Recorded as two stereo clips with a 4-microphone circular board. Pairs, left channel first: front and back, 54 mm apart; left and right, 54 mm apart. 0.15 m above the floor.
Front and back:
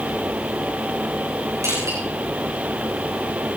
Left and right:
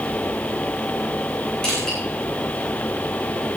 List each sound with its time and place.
1.6 s crushing: 165° left, 8.5 m